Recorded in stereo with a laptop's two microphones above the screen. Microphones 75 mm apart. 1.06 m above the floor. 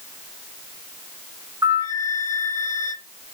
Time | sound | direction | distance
1.6 | a flute | 45° right (ahead or behind) | 1.5 m